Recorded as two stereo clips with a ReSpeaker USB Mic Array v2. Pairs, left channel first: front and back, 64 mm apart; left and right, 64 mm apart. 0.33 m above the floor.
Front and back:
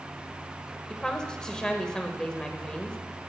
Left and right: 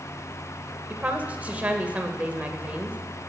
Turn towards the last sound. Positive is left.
turn(degrees=-65)